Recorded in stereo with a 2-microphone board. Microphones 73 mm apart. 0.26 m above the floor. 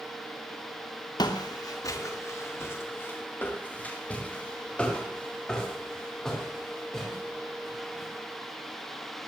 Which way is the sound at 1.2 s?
65° left (ahead or behind).